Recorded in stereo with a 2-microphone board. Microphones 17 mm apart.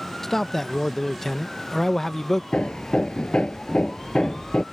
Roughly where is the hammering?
Left.